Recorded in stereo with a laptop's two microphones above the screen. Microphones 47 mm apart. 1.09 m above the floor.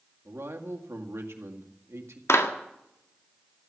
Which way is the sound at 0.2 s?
70° right (ahead or behind).